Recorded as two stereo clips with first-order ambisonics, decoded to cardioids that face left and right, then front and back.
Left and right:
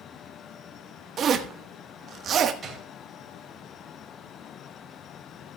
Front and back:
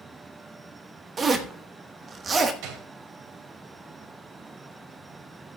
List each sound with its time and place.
1.2 s a zipper: 125° right, 1.1 m
2.6 s a gunshot: 160° right, 3 m